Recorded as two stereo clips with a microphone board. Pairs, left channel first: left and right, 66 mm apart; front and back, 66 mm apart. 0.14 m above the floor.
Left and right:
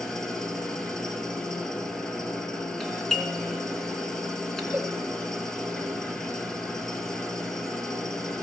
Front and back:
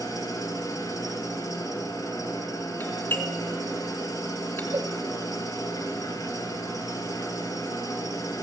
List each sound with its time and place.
0.0 s an engine running: 10° left, 2.5 m
2.8 s a doorbell: 5° left, 2.5 m
4.7 s a cowbell: 160° right, 1.1 m